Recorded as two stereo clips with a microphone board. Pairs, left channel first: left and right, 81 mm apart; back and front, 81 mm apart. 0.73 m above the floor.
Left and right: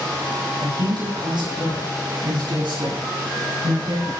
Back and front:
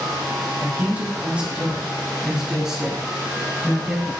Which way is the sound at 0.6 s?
70° right.